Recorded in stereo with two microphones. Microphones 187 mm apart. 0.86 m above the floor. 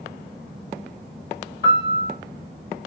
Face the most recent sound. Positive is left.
turn(degrees=-25)  # may be behind; listen again after turning